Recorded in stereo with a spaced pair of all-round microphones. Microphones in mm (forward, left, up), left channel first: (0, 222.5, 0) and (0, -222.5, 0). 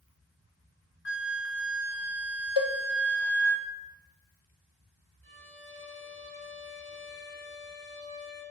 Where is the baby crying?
I don't hear a baby crying.